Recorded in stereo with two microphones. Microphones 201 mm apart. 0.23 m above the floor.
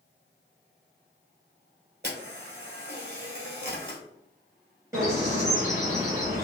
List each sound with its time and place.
2.0 s a camera shutter: 60° right (ahead or behind), 1.7 m
4.9 s a bird: 15° right (ahead or behind), 2.0 m